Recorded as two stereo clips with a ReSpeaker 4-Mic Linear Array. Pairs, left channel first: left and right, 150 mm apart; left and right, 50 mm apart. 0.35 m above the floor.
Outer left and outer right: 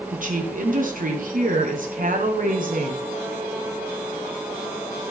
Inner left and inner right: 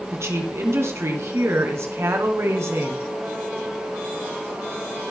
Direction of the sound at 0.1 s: 65° right (ahead or behind).